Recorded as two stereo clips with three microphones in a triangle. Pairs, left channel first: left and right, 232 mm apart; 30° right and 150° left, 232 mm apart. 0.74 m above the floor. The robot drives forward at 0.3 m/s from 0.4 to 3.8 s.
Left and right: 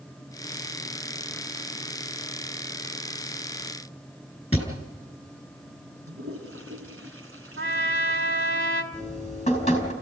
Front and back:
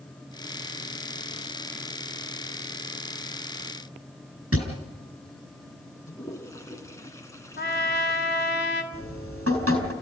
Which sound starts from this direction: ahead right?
A trumpet, at 7.6 s.